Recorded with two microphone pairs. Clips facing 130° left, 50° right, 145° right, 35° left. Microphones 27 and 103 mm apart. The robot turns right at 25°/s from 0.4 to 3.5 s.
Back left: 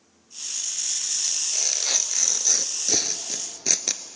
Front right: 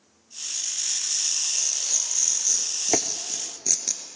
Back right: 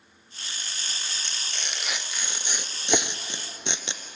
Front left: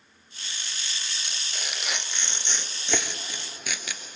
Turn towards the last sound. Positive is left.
turn(degrees=-65)